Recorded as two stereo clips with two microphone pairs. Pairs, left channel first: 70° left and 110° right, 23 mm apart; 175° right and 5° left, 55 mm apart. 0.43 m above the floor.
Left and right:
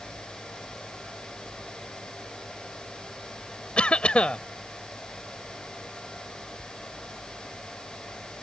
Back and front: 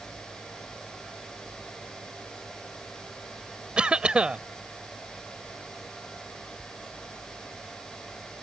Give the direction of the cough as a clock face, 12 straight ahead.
10 o'clock.